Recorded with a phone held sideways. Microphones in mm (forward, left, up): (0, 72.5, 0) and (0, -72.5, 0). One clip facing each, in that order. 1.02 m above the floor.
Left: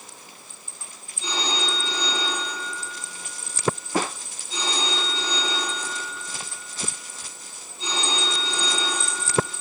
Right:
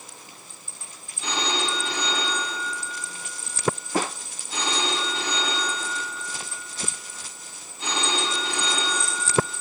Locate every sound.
1.2 s a phone ringing: 75° right (ahead or behind), 6.5 m